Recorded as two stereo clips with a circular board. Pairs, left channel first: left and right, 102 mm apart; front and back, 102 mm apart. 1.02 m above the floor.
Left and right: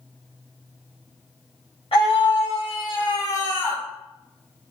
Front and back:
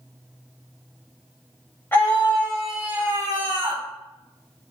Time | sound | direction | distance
1.9 | a scream | 70° left | 1.4 m